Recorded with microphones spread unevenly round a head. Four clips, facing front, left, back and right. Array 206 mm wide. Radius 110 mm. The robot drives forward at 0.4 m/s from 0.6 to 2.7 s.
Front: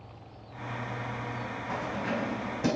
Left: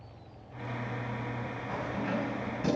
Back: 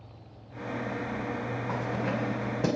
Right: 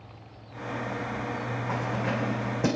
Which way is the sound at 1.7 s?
130° right.